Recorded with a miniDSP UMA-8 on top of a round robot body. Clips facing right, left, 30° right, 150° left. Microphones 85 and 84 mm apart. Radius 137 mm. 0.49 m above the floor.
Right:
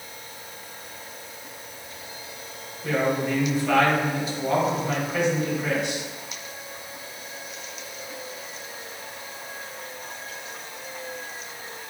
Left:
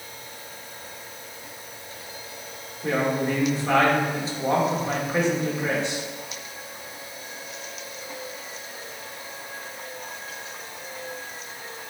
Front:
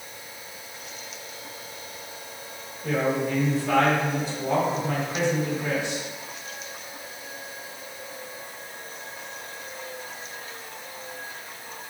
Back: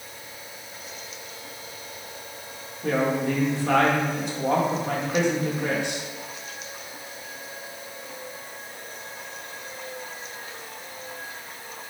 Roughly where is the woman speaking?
Behind left.